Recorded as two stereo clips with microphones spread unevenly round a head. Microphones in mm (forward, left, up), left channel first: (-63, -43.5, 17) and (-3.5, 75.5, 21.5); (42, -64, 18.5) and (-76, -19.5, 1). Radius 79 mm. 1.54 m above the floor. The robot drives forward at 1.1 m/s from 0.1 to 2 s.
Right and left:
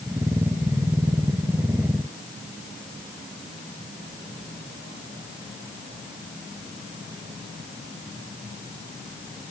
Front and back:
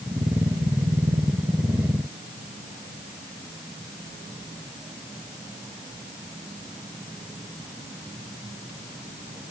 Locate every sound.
Only background noise.